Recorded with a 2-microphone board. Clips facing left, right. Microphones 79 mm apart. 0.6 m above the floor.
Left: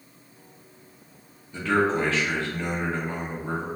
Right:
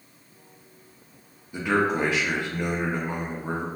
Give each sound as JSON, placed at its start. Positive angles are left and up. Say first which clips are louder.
{"t": 1.5, "sound": "a man speaking", "louder": "left 1 dB", "side_deg": -15, "distance_m": 0.7}